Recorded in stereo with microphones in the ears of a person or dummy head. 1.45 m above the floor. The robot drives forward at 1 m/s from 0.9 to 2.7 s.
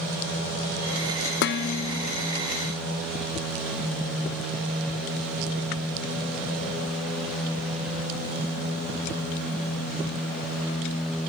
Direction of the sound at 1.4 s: 65° left (ahead or behind).